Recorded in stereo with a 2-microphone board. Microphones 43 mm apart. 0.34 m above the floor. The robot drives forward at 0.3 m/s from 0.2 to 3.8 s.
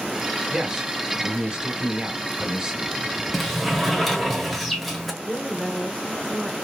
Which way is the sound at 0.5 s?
15° right (ahead or behind).